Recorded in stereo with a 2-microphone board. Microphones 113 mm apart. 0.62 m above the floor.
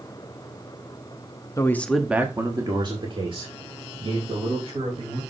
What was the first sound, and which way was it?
A man speaking, 30° left (ahead or behind).